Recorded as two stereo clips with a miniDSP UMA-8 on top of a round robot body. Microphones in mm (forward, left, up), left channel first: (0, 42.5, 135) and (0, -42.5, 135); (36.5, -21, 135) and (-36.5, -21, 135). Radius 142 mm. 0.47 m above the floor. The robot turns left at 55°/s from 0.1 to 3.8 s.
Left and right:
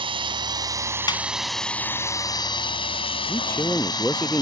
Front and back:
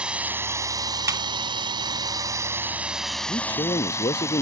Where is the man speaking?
40° left; by 4.4 s 10° left.